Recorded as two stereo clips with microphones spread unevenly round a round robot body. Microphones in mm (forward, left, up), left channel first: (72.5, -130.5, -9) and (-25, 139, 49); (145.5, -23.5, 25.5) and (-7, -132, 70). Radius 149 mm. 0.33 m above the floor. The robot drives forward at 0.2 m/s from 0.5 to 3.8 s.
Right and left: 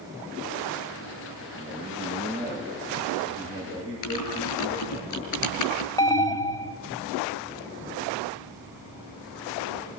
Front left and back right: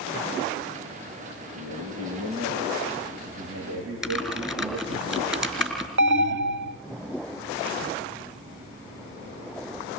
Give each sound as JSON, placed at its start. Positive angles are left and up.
{"t": 1.6, "sound": "a man speaking", "azimuth_deg": -135, "distance_m": 9.0}
{"t": 4.0, "sound": "typing on a keyboard", "azimuth_deg": -55, "distance_m": 5.0}
{"t": 6.0, "sound": "an alarm", "azimuth_deg": -135, "distance_m": 0.9}